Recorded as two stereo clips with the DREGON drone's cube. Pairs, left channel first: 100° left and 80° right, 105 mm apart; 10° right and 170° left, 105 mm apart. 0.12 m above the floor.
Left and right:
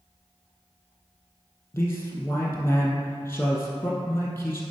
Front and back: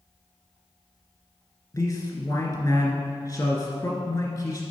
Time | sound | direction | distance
1.7 | a man speaking | 35° left | 1.9 m